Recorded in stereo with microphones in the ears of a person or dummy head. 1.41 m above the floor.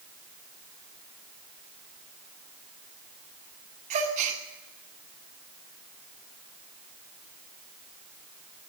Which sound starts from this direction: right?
A gasp, at 3.9 s.